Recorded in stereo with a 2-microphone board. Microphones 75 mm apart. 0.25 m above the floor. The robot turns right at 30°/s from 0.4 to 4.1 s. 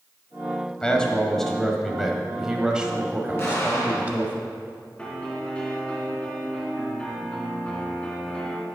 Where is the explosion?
30° left (ahead or behind), 3 m; by 4.3 s 50° left (ahead or behind), 3 m.